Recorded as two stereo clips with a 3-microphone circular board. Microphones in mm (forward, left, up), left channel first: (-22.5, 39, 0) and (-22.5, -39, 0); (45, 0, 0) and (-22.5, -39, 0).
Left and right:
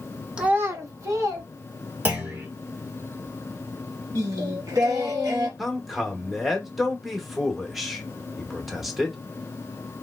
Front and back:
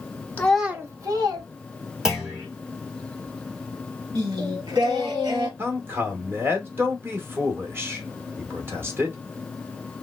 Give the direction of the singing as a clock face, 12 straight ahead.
4 o'clock.